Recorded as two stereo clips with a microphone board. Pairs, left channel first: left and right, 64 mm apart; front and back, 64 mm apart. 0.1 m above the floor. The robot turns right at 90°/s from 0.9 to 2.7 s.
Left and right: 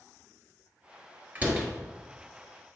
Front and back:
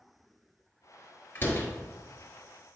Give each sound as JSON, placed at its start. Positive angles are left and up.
{"t": 1.4, "sound": "a door slam", "azimuth_deg": -45, "distance_m": 1.4}